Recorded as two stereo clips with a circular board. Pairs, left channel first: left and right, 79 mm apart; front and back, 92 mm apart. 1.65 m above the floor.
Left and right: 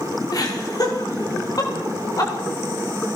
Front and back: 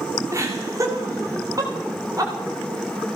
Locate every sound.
0.3 s laughter: 125° left, 5.5 m; by 2.3 s 130° left, 8.5 m